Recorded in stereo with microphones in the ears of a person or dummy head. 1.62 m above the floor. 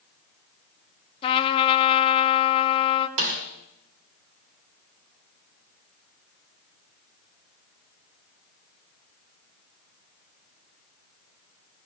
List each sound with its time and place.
1.2 s a trumpet: 40° left (ahead or behind), 1.1 m
3.2 s a snare drum: 55° right (ahead or behind), 1.9 m